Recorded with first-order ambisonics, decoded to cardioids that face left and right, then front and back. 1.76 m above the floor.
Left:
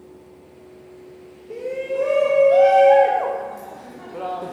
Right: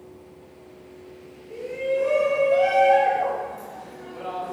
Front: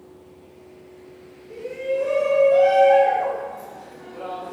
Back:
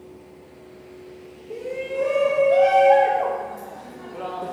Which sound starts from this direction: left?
A shout, at 1.5 s.